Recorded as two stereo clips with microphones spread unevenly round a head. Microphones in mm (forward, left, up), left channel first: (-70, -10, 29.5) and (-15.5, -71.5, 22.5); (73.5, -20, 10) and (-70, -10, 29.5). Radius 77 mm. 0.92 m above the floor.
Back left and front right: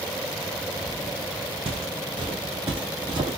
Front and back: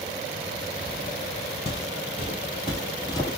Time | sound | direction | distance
1.6 | footsteps | 50° right | 2 m